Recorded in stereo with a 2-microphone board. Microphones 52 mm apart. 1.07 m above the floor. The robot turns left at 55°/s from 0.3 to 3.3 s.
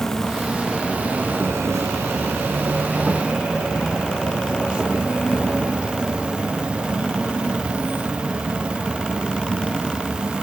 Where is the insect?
10° left, 1.0 m; by 10.4 s 155° right, 1.0 m.